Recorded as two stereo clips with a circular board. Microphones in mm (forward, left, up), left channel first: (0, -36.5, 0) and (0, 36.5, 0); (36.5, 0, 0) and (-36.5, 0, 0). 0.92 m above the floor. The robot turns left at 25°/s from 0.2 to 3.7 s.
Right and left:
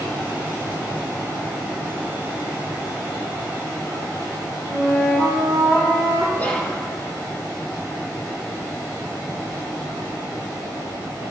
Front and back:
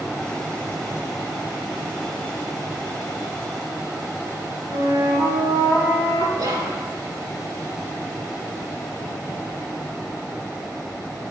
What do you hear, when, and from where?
4.7 s a flute: 155° right, 4 m
6.3 s whispering: 155° right, 2 m